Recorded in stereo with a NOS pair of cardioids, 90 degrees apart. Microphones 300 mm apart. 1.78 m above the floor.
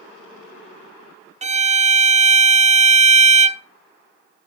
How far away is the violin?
About 0.7 m.